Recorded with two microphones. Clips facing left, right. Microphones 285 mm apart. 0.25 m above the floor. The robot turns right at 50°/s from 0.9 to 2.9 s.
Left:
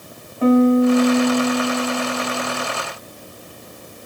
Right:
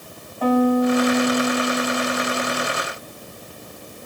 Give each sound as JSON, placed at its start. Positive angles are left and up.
{"t": 0.4, "sound": "a piano", "side_deg": 25, "distance_m": 0.9}